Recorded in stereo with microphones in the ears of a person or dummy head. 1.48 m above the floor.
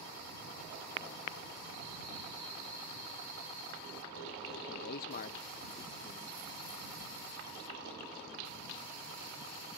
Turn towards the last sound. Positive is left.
turn(degrees=30)  # may be behind; listen again after turning